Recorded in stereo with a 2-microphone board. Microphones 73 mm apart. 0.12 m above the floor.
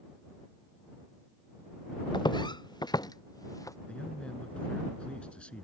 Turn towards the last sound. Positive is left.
turn(degrees=15)  # may be behind; listen again after turning